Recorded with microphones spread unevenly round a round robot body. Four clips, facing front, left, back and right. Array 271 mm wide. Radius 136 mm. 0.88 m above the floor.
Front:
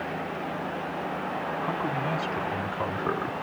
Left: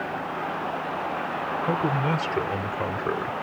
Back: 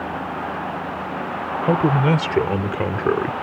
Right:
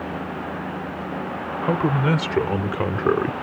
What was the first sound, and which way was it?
A man speaking, 155° right.